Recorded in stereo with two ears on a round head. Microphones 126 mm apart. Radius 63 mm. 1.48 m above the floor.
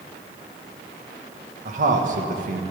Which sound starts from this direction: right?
A man speaking, at 1.6 s.